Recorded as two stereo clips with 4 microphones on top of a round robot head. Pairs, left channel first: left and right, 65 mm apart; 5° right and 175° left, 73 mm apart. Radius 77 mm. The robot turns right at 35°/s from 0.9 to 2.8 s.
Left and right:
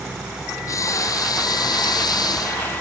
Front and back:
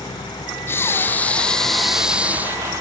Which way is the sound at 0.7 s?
50° left.